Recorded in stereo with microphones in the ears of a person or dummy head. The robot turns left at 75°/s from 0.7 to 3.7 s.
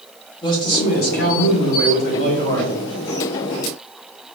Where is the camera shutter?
No camera shutter in this recording.